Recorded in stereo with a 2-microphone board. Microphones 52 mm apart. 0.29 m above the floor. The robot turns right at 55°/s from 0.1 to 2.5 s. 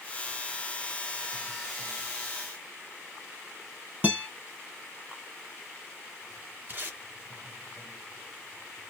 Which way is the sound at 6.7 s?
35° right (ahead or behind).